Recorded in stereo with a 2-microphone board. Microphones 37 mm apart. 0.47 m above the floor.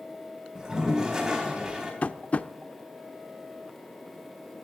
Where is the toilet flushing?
15° right (ahead or behind), 3.5 m.